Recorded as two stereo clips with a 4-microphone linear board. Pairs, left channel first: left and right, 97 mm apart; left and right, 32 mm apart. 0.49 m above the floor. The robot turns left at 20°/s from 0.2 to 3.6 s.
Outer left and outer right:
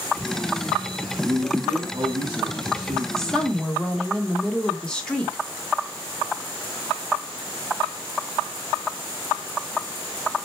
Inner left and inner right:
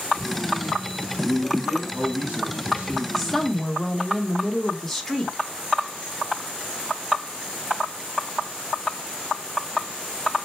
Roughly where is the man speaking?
Right.